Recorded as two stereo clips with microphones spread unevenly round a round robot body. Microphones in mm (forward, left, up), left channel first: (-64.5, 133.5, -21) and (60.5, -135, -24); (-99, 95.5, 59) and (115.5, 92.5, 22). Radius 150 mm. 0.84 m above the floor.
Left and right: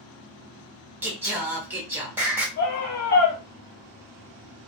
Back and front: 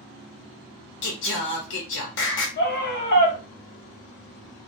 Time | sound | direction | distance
1.0 | singing | 145° right | 0.8 m
2.6 | a scream | 160° left | 1.2 m